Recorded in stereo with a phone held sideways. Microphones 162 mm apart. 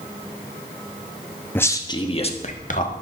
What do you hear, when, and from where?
1.6 s a man speaking: 10° left (ahead or behind), 1.1 m; by 2.9 s 55° left (ahead or behind), 1.7 m